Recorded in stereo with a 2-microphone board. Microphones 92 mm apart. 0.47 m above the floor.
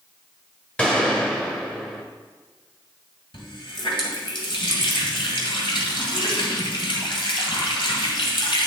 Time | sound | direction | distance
0.8 | a gunshot | 10° left (ahead or behind) | 1.4 m
3.3 | a running tap | 65° left (ahead or behind) | 1.9 m